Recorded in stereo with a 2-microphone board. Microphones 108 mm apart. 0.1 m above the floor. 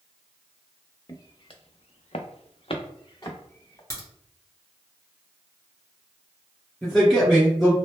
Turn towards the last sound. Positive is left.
turn(degrees=0)  # may be behind; listen again after turning